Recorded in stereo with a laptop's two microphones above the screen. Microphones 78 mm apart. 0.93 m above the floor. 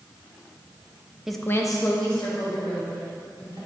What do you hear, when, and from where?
1.3 s a woman speaking: 5° right (ahead or behind), 0.6 m; by 3.6 s 70° left (ahead or behind), 3.5 m